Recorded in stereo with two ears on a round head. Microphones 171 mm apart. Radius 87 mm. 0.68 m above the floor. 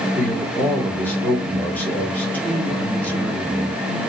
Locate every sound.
0.1 s a man speaking: 10° left (ahead or behind), 1.4 m